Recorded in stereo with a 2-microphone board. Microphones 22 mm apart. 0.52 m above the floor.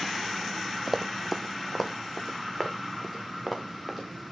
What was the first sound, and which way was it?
Running footsteps, 15° right (ahead or behind).